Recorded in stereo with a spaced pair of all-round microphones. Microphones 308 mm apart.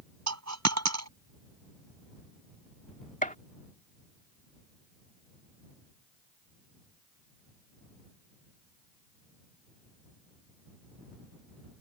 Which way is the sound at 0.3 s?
60° right (ahead or behind).